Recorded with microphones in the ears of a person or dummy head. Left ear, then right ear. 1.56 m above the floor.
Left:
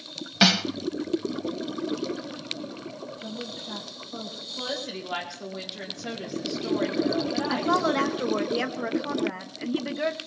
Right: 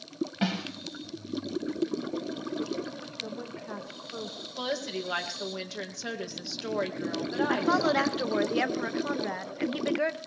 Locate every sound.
0.4 s a snare drum: 55° left (ahead or behind), 0.9 m
3.2 s a woman speaking: 35° right (ahead or behind), 1.3 m
4.6 s a woman speaking: 85° right, 1.8 m
7.5 s a woman speaking: 15° right (ahead or behind), 0.6 m